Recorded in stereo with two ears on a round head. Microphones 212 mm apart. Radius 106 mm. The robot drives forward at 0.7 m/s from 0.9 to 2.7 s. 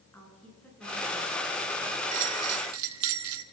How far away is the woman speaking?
About 9 m.